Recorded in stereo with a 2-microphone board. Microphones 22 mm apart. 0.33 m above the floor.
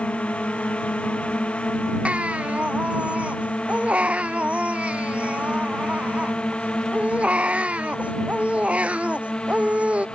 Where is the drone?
70° left (ahead or behind); by 10.2 s 45° left (ahead or behind).